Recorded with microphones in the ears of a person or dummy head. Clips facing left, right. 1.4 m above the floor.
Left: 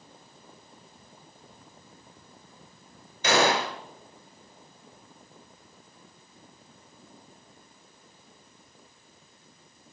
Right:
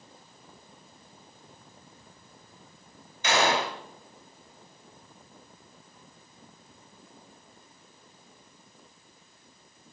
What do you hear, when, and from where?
3.2 s a gunshot: 35° left (ahead or behind), 3.5 m